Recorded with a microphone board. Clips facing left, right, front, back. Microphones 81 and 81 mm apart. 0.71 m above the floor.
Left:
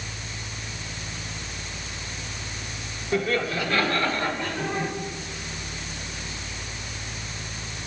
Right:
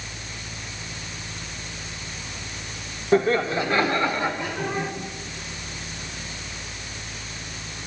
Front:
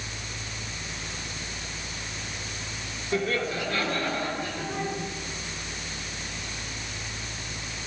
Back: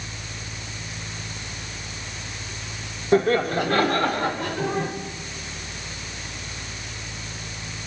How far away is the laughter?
About 2 m.